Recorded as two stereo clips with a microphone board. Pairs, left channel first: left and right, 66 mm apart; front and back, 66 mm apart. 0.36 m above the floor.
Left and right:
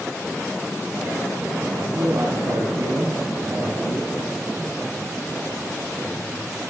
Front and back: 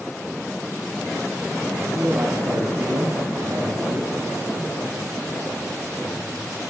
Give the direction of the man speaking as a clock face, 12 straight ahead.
4 o'clock.